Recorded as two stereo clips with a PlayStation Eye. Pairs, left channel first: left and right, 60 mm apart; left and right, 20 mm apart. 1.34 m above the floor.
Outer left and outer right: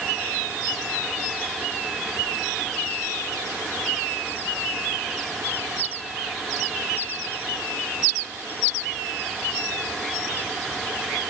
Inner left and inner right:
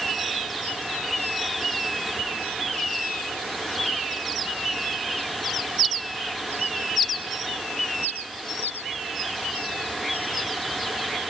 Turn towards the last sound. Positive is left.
No sound to turn to.